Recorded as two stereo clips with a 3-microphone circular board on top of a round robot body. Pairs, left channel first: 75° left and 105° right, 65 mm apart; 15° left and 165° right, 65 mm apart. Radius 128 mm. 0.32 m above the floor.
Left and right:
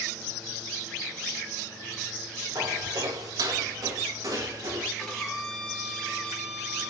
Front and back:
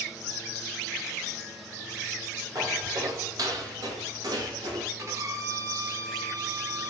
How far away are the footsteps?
About 6 m.